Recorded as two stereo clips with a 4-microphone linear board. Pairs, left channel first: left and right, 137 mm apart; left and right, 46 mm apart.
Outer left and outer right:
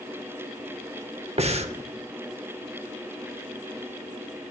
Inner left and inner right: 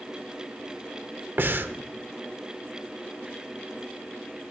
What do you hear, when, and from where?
1.4 s breathing: 50° right (ahead or behind), 0.8 m